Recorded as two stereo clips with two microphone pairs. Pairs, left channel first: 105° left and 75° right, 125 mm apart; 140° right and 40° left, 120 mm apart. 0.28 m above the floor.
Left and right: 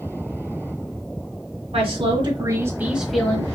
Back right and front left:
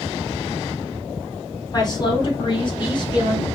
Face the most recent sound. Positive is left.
turn(degrees=180)